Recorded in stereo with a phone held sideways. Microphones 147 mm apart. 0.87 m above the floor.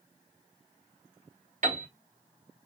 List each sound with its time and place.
1.6 s a piano: 60° right (ahead or behind), 1.5 m